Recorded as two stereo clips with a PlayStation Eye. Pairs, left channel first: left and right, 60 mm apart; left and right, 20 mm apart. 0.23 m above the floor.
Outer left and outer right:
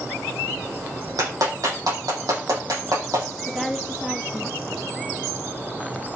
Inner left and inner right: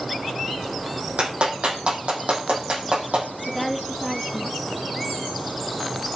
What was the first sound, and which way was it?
A clap, 85° right.